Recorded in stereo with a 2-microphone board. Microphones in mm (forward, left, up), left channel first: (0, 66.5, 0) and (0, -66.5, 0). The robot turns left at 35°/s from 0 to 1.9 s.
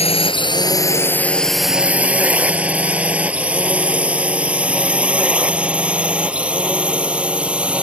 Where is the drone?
50° left (ahead or behind); by 7.8 s 10° right (ahead or behind).